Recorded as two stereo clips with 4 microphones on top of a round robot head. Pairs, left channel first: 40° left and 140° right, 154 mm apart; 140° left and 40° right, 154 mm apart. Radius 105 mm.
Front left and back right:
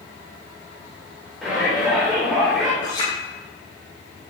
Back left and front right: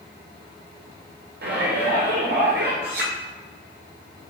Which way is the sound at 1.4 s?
50° right.